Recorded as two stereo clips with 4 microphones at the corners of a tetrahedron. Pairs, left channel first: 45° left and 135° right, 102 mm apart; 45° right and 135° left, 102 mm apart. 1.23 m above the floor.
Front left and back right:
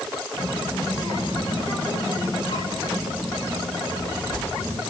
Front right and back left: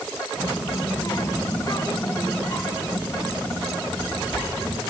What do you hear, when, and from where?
0.4 s a child speaking: 10° left, 8.5 m; by 4.8 s 15° left, 13.5 m